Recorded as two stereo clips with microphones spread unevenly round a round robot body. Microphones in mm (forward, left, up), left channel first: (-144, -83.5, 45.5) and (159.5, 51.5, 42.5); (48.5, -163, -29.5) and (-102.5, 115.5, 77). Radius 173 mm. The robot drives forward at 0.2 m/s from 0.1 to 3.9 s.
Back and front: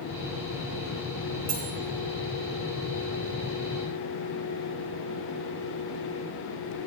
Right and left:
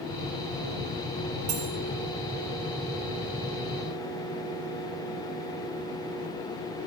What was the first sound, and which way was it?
Cutlery clinking, 70° left.